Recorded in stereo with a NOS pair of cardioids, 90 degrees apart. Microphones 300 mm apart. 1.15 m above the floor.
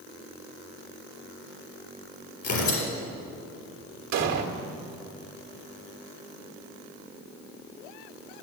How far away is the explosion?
About 1.5 m.